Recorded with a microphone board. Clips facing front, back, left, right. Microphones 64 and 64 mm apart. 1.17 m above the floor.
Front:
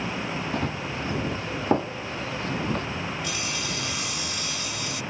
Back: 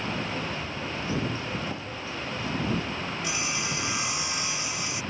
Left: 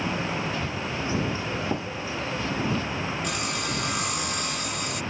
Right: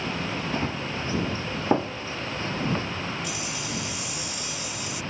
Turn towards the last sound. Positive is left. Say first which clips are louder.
# even, left 3 dB
turn(degrees=115)